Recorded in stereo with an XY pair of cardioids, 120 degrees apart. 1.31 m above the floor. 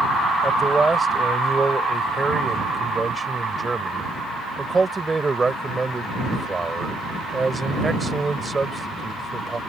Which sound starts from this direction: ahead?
A man speaking, at 0.4 s.